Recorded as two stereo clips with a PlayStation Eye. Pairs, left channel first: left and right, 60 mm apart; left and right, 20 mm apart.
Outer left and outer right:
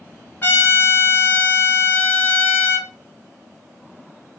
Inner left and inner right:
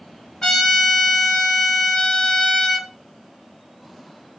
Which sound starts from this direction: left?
A trumpet, at 0.4 s.